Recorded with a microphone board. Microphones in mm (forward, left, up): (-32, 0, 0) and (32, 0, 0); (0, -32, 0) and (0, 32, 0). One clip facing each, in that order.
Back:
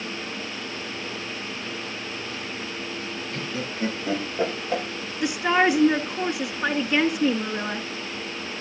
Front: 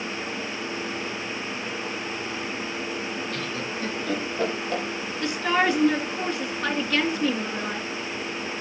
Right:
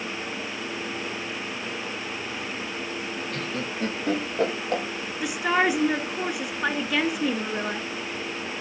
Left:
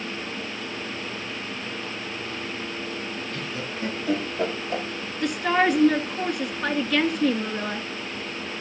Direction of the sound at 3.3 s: 120° right.